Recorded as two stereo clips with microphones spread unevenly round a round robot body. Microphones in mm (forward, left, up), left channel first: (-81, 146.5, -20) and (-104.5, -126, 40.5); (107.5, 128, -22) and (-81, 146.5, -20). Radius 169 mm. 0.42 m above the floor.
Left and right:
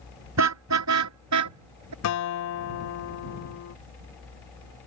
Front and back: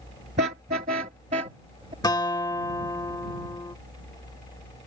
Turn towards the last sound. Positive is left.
turn(degrees=65)